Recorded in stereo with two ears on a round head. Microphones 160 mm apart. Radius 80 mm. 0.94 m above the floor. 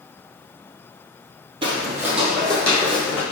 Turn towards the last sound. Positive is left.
turn(degrees=15)  # may be behind; listen again after turning